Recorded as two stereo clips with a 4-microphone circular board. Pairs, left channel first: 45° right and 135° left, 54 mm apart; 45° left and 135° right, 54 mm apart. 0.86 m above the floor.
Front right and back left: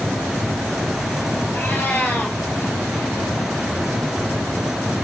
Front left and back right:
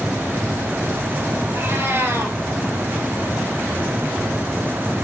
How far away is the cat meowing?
About 3.5 m.